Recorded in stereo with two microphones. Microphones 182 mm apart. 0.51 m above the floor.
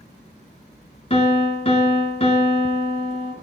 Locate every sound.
1.1 s a piano: 35° left (ahead or behind), 1.1 m